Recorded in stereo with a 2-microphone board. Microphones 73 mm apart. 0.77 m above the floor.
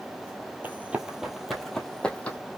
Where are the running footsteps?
25° right (ahead or behind), 0.9 m; by 2.4 s 20° left (ahead or behind), 1.2 m.